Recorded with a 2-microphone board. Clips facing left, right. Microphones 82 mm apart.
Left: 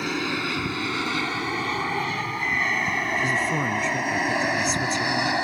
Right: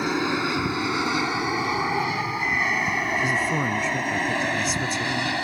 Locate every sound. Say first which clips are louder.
0.0 s an aircraft: right 3 dB; 20° right (ahead or behind); by 5.5 s 20° left (ahead or behind)
3.2 s a woman speaking: even; 5° right (ahead or behind)